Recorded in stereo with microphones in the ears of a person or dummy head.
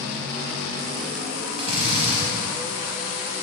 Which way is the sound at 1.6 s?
40° right (ahead or behind).